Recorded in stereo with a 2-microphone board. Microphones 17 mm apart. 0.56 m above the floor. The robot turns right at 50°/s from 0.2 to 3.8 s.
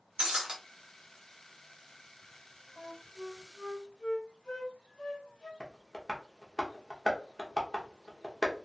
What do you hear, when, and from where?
0.2 s breaking glass: 65° right (ahead or behind), 1.0 m; by 0.6 s 55° right (ahead or behind), 1.0 m
2.8 s a flute: 20° left (ahead or behind), 0.8 m; by 5.5 s 70° left (ahead or behind), 0.8 m
5.6 s tapping: 30° left (ahead or behind), 0.8 m